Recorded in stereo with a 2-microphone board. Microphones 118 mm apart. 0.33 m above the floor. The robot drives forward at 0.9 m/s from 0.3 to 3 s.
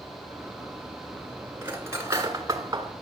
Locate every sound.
1.6 s cutlery clinking: 20° right (ahead or behind), 2.5 m; by 2.9 s 35° right (ahead or behind), 1.7 m